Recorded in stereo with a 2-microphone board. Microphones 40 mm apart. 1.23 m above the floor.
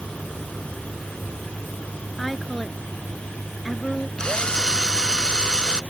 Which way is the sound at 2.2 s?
Centre (ahead or behind).